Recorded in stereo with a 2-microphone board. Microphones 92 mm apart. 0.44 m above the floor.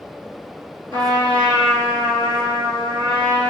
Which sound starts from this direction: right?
A trumpet, at 0.9 s.